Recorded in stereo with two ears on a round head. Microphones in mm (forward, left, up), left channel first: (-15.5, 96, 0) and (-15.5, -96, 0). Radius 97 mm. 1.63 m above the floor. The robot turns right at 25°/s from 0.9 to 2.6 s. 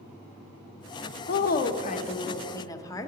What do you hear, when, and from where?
1.3 s a woman speaking: 130° left, 0.5 m; by 3.1 s 165° left, 0.5 m